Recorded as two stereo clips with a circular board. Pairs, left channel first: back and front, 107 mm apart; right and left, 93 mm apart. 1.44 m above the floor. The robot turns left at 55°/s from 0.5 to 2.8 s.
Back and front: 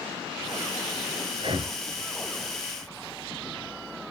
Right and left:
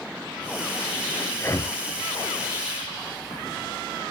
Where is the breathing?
20° right, 0.6 m; by 1.8 s 45° right, 0.6 m.